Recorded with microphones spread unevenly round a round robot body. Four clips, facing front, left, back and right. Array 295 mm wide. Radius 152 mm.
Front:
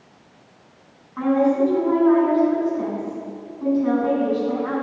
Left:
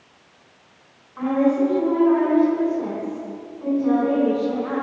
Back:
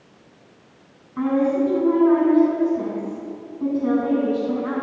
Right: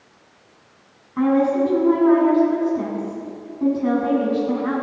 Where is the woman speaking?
120° right, 10 m.